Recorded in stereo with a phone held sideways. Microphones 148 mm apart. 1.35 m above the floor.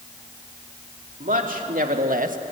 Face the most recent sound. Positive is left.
turn(degrees=-65)  # may be behind; listen again after turning